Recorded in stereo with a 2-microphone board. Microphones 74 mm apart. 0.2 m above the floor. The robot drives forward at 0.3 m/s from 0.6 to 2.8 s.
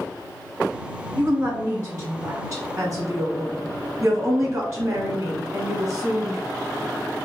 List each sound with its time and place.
1.2 s a woman speaking: 35° right (ahead or behind), 1.8 m; by 6.4 s 45° right (ahead or behind), 1.6 m